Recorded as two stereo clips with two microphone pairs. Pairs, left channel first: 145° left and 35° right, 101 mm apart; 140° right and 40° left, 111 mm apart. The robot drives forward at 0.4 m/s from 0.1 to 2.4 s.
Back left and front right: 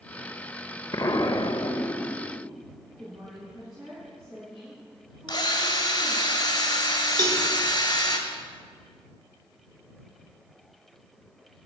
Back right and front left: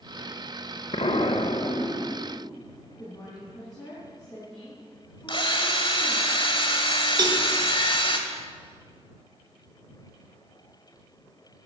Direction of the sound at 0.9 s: 160° right.